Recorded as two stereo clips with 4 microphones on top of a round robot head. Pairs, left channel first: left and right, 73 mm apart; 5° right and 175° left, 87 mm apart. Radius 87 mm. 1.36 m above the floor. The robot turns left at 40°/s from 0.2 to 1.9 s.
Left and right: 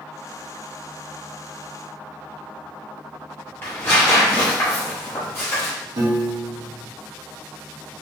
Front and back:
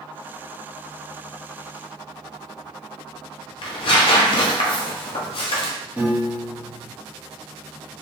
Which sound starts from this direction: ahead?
Tearing paper, at 3.6 s.